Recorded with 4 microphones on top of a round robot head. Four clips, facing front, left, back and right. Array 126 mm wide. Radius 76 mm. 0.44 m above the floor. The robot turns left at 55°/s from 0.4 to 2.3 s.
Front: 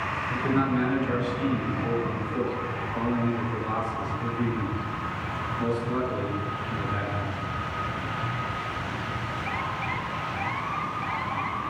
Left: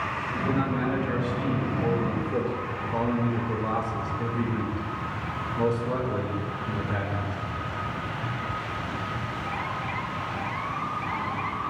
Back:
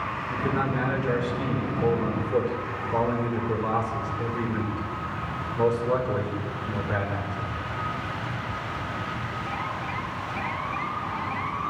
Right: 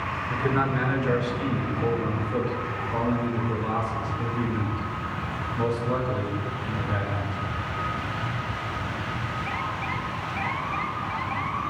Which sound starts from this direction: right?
A man speaking, at 0.3 s.